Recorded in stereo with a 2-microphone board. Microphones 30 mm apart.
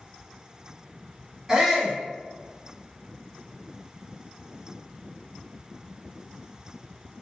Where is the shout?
25° right (ahead or behind), 1.1 m.